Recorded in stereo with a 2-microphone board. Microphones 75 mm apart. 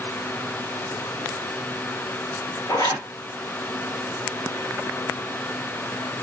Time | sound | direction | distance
2.7 | a zipper | 80° left | 1.9 m